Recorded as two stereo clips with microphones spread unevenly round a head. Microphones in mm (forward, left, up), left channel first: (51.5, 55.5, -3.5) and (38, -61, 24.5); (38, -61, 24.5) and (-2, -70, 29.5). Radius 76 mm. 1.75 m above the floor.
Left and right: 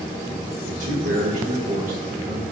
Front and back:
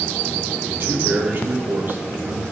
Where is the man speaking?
125° right, 2.0 m.